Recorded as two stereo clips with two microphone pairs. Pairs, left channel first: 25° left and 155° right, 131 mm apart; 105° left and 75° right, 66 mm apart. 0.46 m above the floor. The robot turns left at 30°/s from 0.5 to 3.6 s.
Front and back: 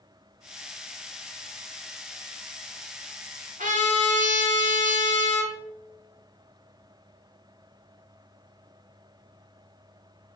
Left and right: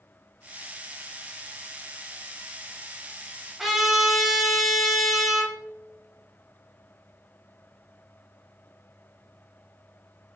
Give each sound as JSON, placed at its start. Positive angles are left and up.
{"t": 3.6, "sound": "a trumpet", "azimuth_deg": -160, "distance_m": 0.9}